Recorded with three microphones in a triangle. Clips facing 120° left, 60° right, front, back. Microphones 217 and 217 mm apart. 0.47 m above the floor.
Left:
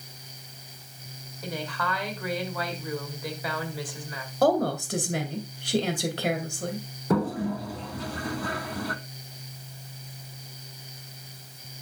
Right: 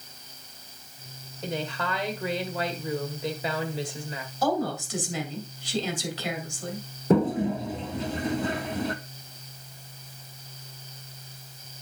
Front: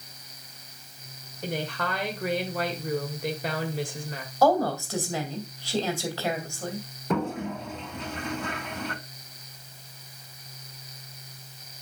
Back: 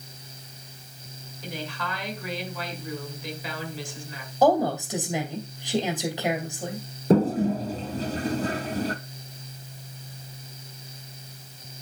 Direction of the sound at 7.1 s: 125° right.